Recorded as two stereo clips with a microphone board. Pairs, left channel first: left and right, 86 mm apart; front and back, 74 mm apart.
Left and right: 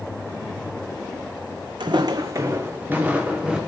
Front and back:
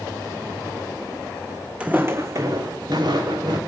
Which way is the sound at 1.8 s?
105° right.